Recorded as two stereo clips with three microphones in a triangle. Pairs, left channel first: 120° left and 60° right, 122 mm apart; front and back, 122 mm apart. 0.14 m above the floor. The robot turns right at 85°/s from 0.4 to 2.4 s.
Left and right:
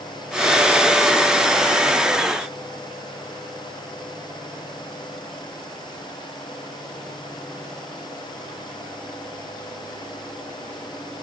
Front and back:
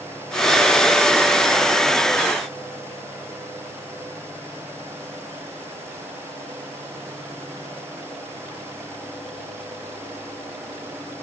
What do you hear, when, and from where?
Only background noise.